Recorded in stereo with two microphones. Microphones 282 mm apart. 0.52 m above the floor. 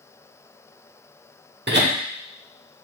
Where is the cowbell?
I don't hear a cowbell.